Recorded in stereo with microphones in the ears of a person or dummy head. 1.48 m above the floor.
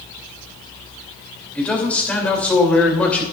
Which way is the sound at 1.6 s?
10° left (ahead or behind).